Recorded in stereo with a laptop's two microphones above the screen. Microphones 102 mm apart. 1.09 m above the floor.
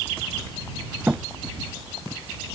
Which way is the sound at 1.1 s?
15° right (ahead or behind).